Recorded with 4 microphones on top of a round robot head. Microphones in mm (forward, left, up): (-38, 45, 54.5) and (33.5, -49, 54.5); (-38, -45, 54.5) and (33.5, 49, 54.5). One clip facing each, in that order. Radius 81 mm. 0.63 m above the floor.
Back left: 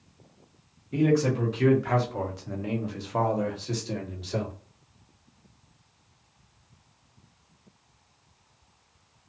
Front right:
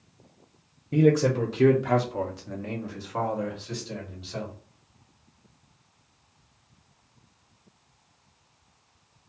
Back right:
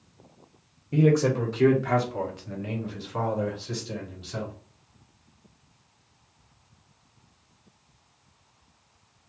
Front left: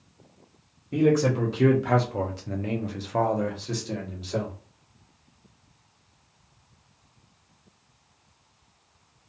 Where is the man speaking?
35° right, 0.9 m; by 4.5 s 95° left, 1.4 m.